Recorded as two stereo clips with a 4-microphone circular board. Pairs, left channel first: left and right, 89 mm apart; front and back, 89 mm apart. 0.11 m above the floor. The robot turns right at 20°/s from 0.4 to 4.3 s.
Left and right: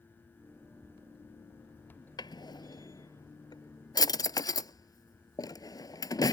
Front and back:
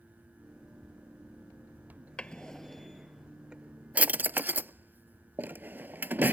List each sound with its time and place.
2.2 s a drawer: 75° left; by 6.3 s 120° left